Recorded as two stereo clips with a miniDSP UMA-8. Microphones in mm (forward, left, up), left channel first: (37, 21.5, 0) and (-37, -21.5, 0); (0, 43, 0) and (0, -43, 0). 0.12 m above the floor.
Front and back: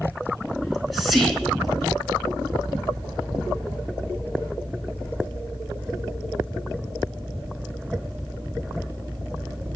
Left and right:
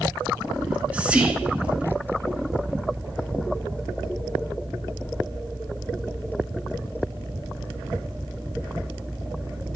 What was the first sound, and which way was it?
Whispering, 55° right.